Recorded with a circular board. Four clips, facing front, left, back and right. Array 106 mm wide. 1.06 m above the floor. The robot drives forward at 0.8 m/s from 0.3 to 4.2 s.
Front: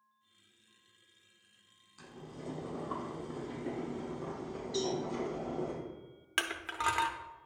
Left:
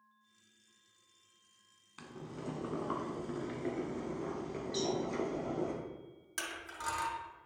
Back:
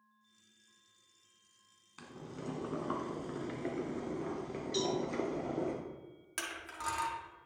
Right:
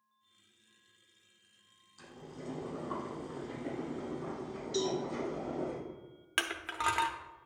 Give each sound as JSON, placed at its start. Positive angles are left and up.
{"t": 2.0, "sound": "boiling", "azimuth_deg": 125, "distance_m": 1.5}
{"t": 4.7, "sound": "a cowbell", "azimuth_deg": -160, "distance_m": 3.0}
{"t": 6.4, "sound": "crushing", "azimuth_deg": -55, "distance_m": 0.7}